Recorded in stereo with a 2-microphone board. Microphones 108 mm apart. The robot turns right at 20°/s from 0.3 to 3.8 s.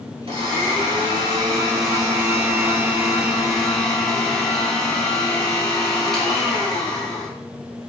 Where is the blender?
65° right, 1.1 m; by 7.3 s 5° left, 1.1 m.